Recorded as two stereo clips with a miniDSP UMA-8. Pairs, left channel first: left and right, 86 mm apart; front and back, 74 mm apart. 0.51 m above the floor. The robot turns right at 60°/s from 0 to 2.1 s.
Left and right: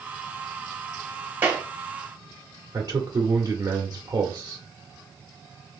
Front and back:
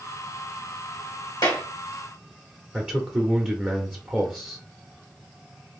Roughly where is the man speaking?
Behind right.